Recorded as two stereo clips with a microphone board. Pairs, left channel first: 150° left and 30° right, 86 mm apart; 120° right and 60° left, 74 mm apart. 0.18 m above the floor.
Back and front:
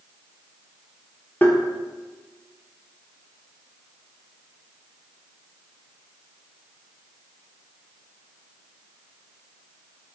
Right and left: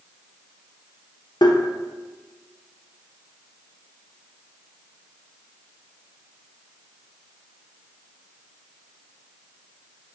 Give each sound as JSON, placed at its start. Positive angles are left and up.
{"t": 1.4, "sound": "tapping", "azimuth_deg": -140, "distance_m": 0.6}